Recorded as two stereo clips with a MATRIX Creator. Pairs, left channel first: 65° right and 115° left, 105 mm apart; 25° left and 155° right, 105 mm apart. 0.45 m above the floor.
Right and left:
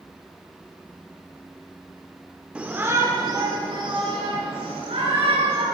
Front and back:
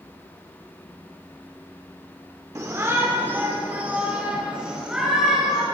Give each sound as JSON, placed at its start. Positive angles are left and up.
{"t": 2.5, "sound": "a shout", "azimuth_deg": 180, "distance_m": 0.8}